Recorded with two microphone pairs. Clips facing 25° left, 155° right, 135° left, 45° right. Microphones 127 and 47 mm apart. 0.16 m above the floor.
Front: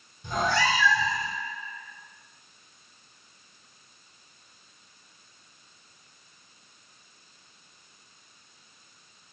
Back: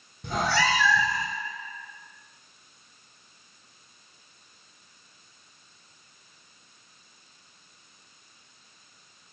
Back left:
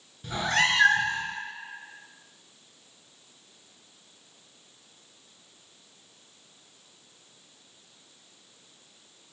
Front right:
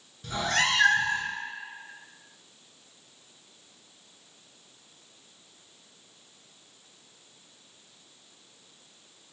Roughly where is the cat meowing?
Behind right.